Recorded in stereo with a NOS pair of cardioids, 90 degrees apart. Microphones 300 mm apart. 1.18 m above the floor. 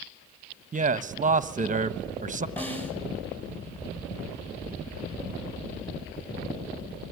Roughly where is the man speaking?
Ahead right.